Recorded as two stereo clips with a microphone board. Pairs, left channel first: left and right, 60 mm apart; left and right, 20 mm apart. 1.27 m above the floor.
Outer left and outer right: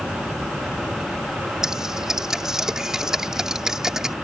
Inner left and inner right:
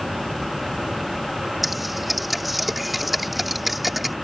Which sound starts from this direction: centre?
Typing on a keyboard, at 1.6 s.